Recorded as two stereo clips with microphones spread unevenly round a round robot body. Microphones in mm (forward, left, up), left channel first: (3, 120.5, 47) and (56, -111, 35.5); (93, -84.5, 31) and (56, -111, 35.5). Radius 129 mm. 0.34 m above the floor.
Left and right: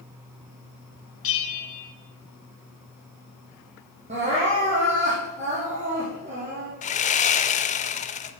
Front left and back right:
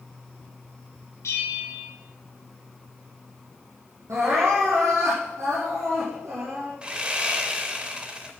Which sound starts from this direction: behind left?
Sawing, at 6.8 s.